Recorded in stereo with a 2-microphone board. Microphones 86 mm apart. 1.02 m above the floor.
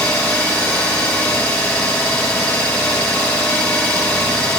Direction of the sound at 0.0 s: 5° left (ahead or behind).